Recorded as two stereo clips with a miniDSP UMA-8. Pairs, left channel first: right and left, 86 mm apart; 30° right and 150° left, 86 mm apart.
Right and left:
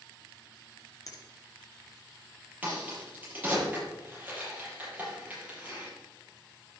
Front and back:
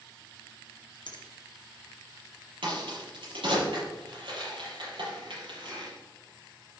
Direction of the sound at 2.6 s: 160° left.